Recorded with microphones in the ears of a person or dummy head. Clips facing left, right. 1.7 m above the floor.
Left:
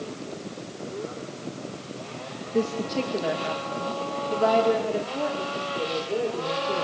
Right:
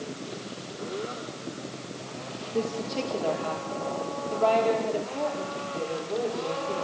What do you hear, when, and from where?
2.5 s a woman speaking: 20° left (ahead or behind), 2 m; by 6.8 s 10° left (ahead or behind), 7 m